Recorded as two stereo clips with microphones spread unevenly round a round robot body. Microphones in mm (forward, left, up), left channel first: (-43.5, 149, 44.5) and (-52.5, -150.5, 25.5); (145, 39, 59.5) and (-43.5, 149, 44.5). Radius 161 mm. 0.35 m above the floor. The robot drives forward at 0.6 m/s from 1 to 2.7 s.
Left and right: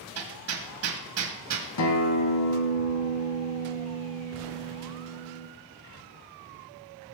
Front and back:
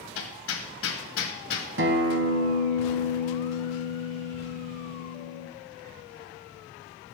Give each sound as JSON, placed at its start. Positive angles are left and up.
{"t": 0.1, "sound": "hammering", "azimuth_deg": -55, "distance_m": 1.9}
{"t": 1.8, "sound": "a guitar", "azimuth_deg": 125, "distance_m": 1.6}